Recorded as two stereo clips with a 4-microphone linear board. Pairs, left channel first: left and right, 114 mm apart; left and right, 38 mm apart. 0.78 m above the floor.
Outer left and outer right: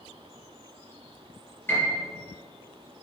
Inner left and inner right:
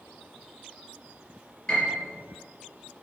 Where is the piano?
20° left (ahead or behind), 4.5 m.